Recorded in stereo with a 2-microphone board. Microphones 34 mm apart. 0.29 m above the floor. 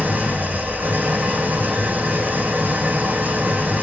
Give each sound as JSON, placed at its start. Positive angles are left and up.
{"t": 0.0, "sound": "an engine running", "side_deg": -80, "distance_m": 5.0}